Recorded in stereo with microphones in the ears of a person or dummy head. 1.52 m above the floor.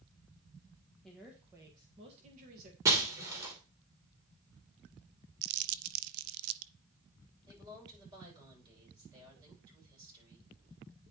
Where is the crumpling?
85° right, 0.5 m.